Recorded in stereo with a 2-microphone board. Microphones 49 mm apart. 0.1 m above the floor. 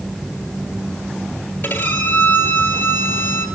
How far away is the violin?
About 2 m.